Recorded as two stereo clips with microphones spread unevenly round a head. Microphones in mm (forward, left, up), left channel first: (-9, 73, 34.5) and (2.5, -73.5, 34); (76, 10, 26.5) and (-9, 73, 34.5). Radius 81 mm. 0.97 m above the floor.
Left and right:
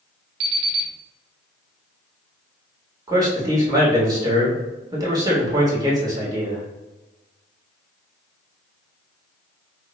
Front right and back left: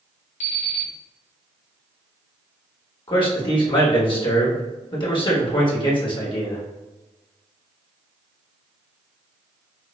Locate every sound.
0.4 s an alarm clock: 70° right, 0.9 m
3.1 s a man speaking: 25° right, 1.3 m